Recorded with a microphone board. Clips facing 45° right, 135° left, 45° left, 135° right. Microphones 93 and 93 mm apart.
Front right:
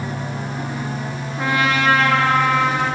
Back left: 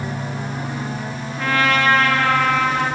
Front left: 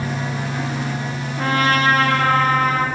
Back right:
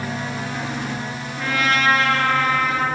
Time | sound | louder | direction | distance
1.4 | a trumpet | back left 1 dB, front left 3 dB | 20° left | 0.9 m